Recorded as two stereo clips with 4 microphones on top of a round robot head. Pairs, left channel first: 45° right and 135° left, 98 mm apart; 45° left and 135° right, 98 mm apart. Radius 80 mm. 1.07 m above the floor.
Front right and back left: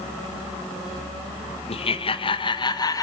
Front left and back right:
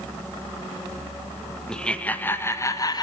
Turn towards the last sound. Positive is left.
turn(degrees=5)